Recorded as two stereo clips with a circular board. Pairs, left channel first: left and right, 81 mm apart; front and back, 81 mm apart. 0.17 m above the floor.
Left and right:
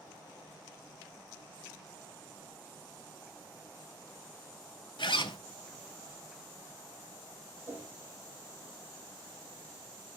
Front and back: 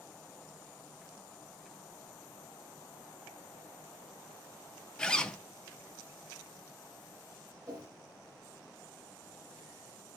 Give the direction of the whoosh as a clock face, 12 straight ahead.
5 o'clock.